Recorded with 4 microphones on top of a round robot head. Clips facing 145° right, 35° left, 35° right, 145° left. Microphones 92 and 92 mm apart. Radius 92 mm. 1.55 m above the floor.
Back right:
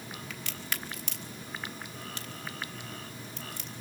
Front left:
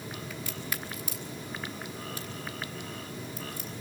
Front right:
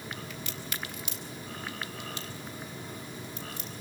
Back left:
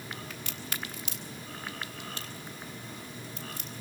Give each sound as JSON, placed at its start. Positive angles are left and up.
{"t": 0.3, "sound": "a crack", "azimuth_deg": -170, "distance_m": 1.1}